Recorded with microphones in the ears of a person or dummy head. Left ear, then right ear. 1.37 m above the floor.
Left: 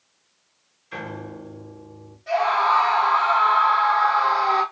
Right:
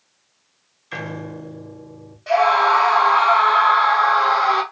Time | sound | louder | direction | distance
0.9 | a piano | right 3 dB | 20° right (ahead or behind) | 0.7 m
2.3 | a scream | right 4 dB | 40° right (ahead or behind) | 1.2 m